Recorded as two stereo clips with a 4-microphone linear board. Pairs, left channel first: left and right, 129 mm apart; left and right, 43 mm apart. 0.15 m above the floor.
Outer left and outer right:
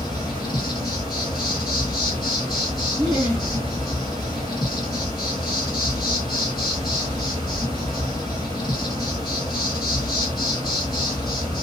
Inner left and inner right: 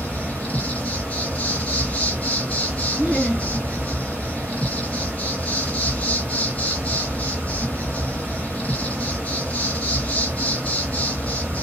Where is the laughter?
30° right (ahead or behind), 2 m.